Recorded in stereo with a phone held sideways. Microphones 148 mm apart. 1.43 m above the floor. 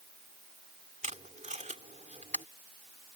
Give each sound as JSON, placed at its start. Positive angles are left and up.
{"t": 1.0, "sound": "tape being pulled", "side_deg": -55}